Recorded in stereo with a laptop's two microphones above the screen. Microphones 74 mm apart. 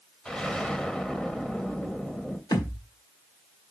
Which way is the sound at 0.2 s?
10° left (ahead or behind).